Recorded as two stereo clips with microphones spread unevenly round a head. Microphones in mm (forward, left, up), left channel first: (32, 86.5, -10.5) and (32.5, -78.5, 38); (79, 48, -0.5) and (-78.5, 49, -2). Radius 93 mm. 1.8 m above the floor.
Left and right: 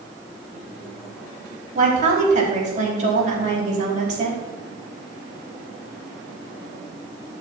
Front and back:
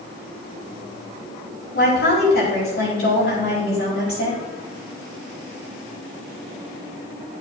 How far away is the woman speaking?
About 4.5 m.